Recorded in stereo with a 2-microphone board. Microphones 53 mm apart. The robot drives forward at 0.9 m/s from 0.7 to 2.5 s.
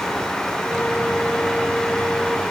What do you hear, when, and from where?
Only background noise.